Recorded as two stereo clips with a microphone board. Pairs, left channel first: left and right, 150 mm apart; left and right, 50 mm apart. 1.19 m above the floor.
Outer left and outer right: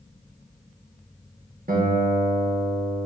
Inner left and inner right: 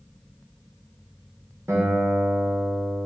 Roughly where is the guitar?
Right.